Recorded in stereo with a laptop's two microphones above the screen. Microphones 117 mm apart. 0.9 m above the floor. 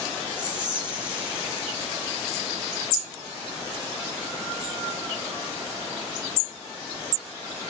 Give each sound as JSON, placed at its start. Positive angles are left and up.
{"t": 0.4, "sound": "whispering", "side_deg": -10, "distance_m": 0.8}